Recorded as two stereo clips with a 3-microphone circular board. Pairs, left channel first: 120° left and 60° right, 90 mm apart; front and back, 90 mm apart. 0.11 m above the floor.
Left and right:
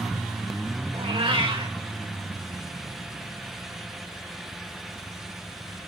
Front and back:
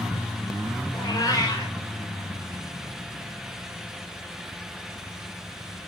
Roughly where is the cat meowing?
Ahead right.